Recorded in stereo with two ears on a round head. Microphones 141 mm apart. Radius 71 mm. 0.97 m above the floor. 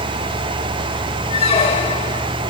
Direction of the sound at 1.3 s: 40° left (ahead or behind).